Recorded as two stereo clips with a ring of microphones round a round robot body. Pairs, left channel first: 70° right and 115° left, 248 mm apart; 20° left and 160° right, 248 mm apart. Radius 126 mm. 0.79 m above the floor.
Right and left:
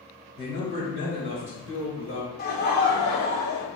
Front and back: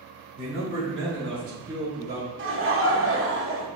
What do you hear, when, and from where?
0.4 s a man speaking: 115° right, 4 m; by 2.3 s 105° right, 3.5 m
2.4 s laughter: 120° right, 2.5 m